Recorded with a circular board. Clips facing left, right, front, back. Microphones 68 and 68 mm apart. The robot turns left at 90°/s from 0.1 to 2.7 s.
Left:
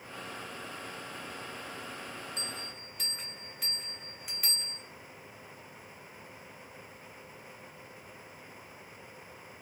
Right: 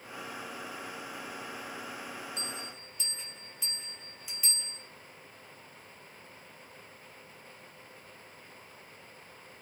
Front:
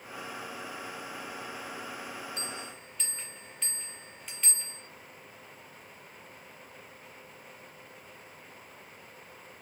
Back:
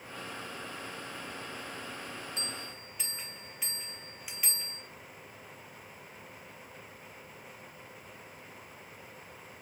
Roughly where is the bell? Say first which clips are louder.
Right 1 dB, front 1 dB; behind left.